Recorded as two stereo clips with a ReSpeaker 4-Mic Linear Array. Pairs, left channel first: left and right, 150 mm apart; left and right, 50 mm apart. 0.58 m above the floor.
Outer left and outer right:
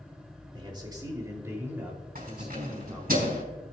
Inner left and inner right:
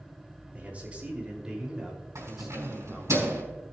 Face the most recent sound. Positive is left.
turn(degrees=-80)